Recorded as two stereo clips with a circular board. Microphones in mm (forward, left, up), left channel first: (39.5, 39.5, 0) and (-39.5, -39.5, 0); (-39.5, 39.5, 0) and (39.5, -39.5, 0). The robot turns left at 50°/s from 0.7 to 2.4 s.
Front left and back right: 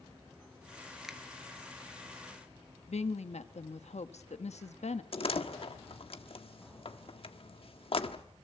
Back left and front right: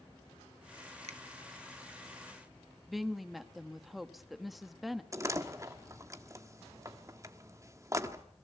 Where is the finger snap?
45° right, 1.4 m; by 1.2 s 55° right, 1.4 m.